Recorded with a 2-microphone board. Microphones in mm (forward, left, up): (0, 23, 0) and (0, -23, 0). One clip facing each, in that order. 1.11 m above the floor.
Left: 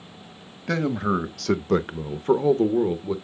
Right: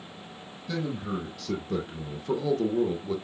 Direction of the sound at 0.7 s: 70° left (ahead or behind).